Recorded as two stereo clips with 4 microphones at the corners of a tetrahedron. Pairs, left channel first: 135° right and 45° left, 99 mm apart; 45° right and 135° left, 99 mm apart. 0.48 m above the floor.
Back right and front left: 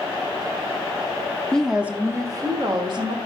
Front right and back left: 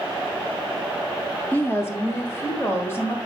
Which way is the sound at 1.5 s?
65° right.